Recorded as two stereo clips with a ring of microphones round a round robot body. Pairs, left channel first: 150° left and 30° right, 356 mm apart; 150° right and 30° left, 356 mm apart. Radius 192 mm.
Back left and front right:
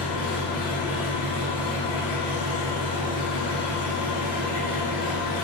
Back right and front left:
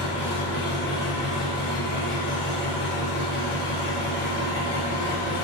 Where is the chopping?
No chopping in this recording.